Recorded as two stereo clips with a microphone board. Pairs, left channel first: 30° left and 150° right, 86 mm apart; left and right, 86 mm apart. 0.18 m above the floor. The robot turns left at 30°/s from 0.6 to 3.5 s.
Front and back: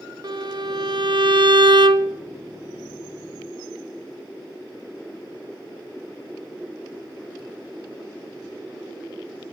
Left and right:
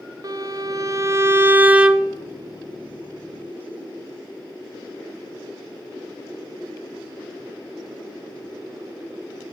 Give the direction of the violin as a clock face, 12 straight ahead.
4 o'clock.